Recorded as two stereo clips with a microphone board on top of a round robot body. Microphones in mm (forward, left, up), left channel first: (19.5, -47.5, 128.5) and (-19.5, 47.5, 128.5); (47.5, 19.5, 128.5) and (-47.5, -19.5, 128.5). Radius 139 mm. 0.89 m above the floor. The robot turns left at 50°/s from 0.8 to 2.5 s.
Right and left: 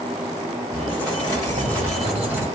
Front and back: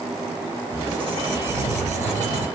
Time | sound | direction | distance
0.7 | a squeak | 100° right | 3 m